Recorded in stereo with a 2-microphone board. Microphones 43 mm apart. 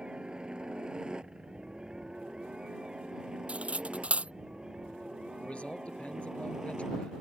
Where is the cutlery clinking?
30° right (ahead or behind).